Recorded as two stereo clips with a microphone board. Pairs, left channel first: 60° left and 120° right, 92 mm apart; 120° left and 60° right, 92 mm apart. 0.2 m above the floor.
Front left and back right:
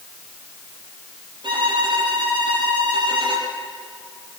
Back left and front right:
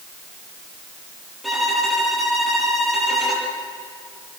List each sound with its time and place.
1.4 s a violin: 150° right, 6 m